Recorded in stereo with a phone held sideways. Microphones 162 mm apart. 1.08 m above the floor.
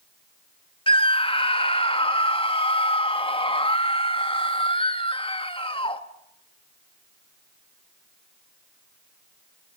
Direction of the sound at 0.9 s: 35° left (ahead or behind).